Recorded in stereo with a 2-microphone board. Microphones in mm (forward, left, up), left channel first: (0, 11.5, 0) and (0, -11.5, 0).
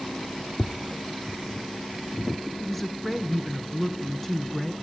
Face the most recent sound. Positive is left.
turn(degrees=10)  # may be behind; listen again after turning